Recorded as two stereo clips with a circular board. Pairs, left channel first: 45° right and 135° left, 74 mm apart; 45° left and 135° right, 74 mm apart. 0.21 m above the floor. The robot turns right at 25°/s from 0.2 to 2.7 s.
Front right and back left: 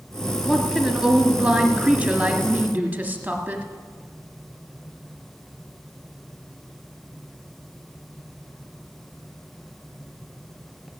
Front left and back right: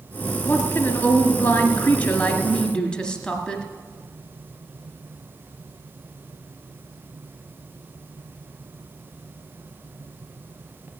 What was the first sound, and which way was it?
A woman speaking, 50° left.